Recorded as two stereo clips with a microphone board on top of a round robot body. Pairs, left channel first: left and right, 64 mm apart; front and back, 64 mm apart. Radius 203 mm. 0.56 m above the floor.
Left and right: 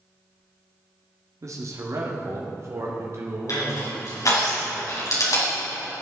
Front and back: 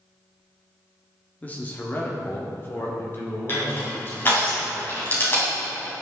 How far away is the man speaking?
About 1.7 m.